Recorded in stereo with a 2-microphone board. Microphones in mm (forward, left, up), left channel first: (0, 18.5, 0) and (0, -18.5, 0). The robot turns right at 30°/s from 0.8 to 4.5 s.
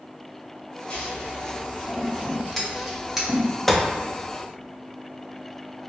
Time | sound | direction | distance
0.9 | scissors | 35° left (ahead or behind) | 0.9 m
3.7 | a gunshot | 10° left (ahead or behind) | 0.5 m